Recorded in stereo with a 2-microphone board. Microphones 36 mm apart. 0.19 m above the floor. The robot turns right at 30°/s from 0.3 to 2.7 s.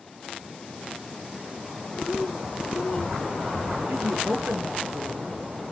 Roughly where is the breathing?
Left.